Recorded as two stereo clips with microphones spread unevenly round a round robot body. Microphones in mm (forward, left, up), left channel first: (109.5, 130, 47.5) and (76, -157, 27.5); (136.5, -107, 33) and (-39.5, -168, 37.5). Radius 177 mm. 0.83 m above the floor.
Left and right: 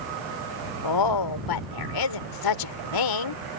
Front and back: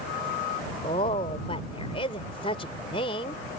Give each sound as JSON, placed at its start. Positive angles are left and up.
{"t": 0.8, "sound": "a woman speaking", "azimuth_deg": 90}